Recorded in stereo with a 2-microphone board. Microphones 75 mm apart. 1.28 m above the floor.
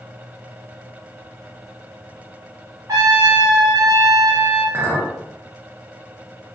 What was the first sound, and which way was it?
A trumpet, 50° right (ahead or behind).